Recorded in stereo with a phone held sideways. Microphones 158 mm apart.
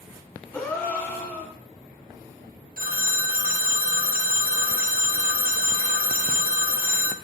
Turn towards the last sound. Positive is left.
turn(degrees=-70)  # may be behind; listen again after turning